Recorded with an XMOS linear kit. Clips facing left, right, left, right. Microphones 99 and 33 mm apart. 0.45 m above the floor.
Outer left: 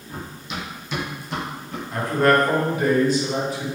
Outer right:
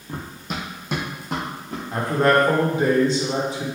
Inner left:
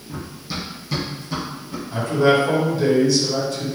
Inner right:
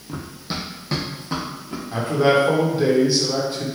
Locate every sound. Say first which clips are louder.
0.1 s running footsteps: outer right 2 dB, inner right 1 dB; 40° right (ahead or behind), 0.8 m; by 1.8 s 50° right (ahead or behind), 1.9 m
1.9 s a man speaking: even, even; 25° right (ahead or behind), 0.9 m